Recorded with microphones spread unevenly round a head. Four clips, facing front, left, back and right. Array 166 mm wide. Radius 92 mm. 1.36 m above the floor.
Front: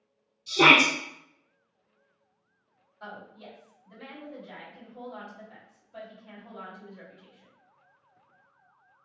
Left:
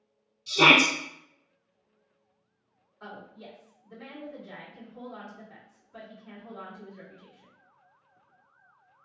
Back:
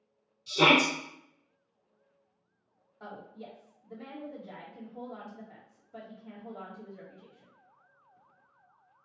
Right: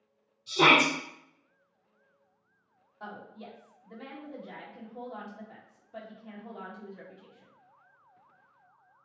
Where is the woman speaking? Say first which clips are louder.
Right 1 dB, front 1 dB; 130° right, 1.7 m.